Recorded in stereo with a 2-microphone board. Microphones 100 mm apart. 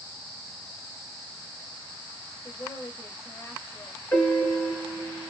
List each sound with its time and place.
2.4 s a woman speaking: 25° left (ahead or behind), 3 m
4.1 s a piano: 15° left (ahead or behind), 3.5 m